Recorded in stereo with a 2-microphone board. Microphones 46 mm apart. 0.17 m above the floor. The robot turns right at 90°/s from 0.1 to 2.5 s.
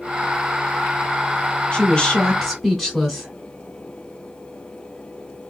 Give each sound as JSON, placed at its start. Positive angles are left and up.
{"t": 1.7, "sound": "a woman speaking", "side_deg": 25, "distance_m": 1.6}